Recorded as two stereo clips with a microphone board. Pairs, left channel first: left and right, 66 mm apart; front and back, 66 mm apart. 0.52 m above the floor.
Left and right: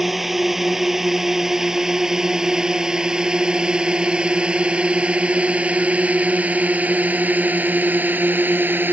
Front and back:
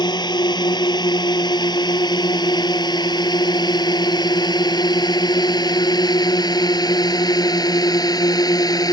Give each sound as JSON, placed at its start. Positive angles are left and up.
{"t": 0.0, "sound": "a drone", "azimuth_deg": -5}